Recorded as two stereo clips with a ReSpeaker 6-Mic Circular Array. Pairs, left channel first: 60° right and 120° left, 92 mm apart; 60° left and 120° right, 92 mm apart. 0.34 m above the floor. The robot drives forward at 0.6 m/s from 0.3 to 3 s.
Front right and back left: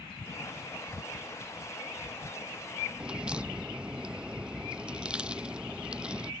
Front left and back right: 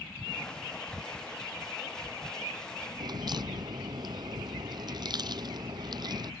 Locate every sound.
3.0 s a crack: 160° right